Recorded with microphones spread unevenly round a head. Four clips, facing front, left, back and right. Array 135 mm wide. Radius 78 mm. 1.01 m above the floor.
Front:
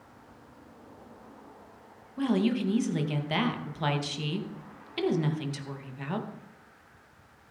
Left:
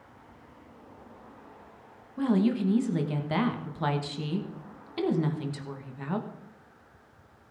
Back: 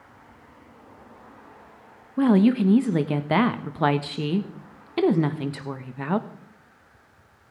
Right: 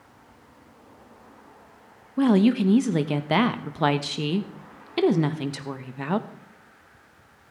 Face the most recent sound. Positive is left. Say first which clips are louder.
# right 6 dB, back 8 dB
turn(degrees=-130)